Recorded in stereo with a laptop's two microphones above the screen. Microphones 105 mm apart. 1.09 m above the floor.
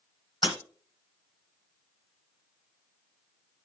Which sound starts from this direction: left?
Breaking glass, at 0.4 s.